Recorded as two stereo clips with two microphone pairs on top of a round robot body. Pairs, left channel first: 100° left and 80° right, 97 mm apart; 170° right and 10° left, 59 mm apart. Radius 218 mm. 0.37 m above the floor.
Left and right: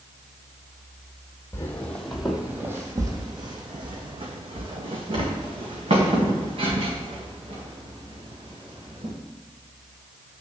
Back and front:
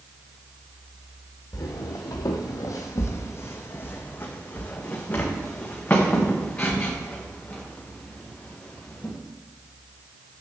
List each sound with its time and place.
1.5 s footsteps: 160° left, 0.8 m; by 9.1 s 95° right, 4 m